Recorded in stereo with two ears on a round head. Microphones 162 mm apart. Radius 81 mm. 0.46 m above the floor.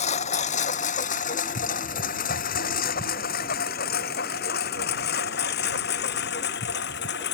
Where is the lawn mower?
40° left (ahead or behind); by 7.3 s 70° left (ahead or behind).